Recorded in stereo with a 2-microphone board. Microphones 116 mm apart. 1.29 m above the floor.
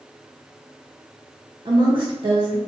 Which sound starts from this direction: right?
A woman speaking, at 1.6 s.